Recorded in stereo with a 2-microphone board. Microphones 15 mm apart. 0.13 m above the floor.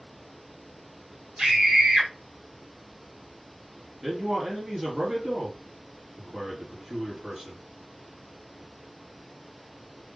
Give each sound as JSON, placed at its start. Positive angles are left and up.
{"t": 1.4, "sound": "a scream", "side_deg": -60, "distance_m": 2.5}
{"t": 4.0, "sound": "a man speaking", "side_deg": -45, "distance_m": 3.0}